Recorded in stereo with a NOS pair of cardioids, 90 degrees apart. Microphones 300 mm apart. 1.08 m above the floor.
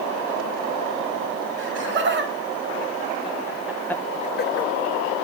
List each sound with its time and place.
1.6 s laughter: 40° right, 2.5 m; by 4.7 s 60° left, 0.9 m